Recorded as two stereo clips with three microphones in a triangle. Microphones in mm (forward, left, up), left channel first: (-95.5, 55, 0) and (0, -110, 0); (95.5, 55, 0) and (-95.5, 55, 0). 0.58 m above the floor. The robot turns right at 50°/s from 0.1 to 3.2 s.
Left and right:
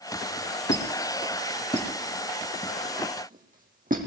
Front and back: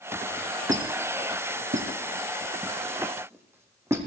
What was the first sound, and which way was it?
A squeak, 130° left.